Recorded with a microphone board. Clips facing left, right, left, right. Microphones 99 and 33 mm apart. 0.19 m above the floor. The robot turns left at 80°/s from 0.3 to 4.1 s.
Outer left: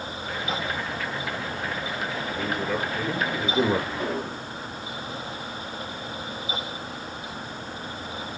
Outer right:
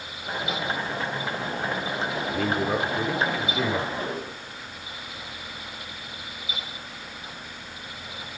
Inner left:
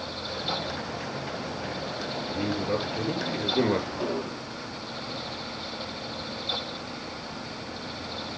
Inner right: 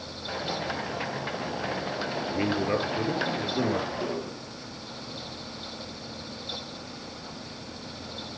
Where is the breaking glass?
No breaking glass in this recording.